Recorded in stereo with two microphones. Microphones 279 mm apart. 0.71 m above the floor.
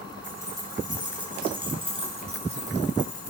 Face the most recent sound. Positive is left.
turn(degrees=-30)  # may be behind; listen again after turning